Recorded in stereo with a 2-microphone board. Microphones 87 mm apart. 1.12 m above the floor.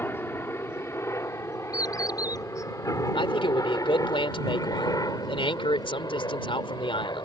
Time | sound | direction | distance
0.0 | a helicopter | 25° left (ahead or behind) | ?
1.7 | a bird | 45° left (ahead or behind) | ?
3.1 | a man speaking | 80° left | ?